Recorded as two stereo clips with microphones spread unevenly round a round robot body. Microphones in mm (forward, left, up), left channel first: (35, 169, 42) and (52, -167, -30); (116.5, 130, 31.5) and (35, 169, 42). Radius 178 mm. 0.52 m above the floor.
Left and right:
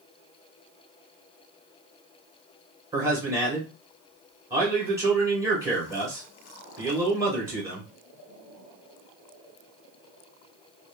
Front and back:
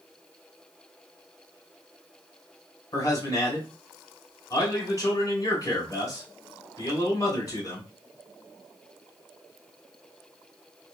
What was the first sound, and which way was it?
A man speaking, 25° right.